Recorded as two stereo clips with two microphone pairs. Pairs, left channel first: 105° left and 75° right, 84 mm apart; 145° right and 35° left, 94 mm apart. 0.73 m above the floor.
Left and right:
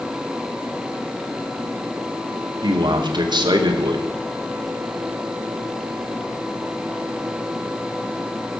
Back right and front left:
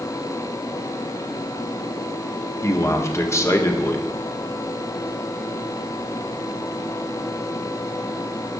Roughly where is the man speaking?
Right.